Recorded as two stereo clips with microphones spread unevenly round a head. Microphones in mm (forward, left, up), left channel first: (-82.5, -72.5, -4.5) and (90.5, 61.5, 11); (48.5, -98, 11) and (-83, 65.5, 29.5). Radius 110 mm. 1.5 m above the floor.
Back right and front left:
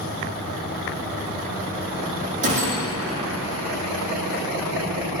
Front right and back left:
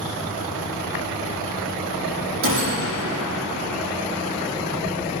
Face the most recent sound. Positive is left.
turn(degrees=95)